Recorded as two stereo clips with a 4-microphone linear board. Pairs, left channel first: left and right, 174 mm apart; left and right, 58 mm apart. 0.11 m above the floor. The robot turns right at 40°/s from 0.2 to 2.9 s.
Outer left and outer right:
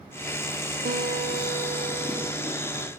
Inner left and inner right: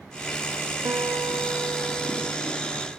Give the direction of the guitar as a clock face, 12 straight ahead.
3 o'clock.